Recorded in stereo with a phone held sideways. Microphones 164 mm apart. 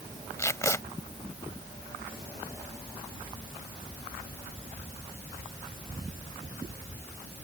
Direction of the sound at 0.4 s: 20° left (ahead or behind).